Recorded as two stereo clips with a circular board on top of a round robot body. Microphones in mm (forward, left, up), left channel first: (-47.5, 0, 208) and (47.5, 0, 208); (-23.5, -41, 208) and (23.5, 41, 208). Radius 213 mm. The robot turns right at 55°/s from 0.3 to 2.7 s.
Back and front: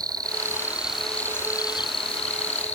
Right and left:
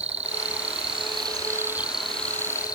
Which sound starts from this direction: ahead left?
An insect, at 0.0 s.